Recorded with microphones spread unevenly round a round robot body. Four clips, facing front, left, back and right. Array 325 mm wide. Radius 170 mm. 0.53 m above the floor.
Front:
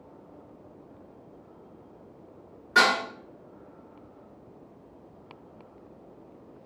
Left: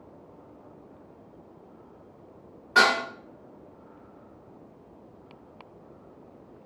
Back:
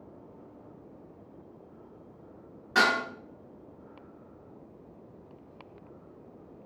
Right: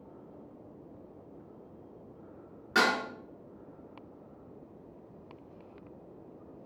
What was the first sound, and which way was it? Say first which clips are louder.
Dishes clattering: left 6 dB, front 3 dB; 110° right.